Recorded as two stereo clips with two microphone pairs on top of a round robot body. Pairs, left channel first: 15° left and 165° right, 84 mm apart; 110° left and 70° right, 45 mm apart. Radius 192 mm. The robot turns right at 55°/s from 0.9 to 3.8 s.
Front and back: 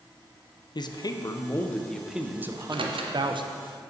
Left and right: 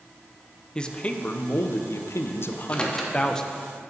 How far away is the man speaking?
About 0.7 m.